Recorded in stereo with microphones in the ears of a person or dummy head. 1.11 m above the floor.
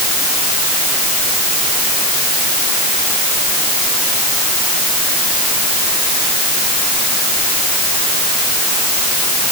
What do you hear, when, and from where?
Only background noise.